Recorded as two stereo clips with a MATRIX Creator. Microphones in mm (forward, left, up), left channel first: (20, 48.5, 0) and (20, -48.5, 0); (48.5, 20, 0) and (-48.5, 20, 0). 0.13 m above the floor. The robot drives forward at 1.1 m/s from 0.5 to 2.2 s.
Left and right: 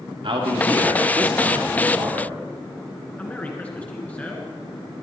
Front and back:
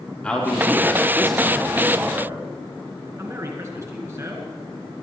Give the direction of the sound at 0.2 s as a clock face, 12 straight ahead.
3 o'clock.